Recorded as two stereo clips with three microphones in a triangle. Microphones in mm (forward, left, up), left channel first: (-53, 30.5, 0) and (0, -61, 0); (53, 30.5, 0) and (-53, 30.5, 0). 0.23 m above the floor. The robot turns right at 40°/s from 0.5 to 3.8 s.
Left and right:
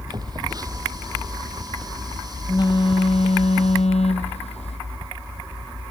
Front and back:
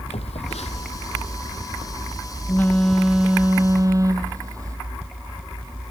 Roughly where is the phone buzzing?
Ahead.